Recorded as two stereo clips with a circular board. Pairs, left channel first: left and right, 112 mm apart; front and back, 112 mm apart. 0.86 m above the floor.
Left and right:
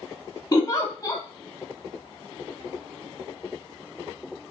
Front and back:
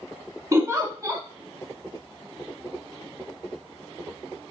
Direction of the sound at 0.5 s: 135° left.